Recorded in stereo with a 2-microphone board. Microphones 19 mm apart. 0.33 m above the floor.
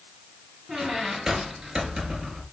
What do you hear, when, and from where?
0.7 s a squeak: 35° right (ahead or behind), 2 m